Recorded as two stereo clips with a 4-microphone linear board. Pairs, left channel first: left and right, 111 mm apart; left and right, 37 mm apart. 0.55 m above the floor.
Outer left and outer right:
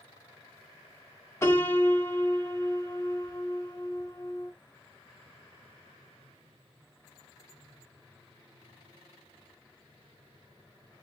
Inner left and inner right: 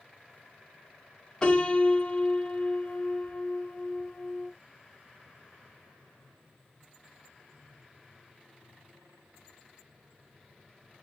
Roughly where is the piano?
Left.